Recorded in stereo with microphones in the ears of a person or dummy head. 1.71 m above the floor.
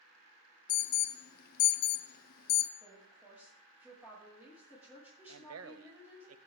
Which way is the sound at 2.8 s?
20° right (ahead or behind).